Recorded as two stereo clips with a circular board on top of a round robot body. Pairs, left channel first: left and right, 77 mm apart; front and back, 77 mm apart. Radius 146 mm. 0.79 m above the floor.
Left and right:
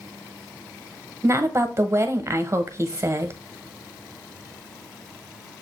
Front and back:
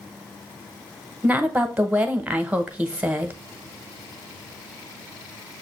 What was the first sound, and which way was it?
A woman speaking, 115° right.